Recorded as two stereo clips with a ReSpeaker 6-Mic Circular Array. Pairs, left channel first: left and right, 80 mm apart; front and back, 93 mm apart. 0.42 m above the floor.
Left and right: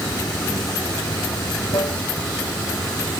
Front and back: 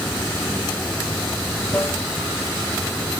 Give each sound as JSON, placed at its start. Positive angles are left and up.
{"t": 0.0, "sound": "running water", "azimuth_deg": 65}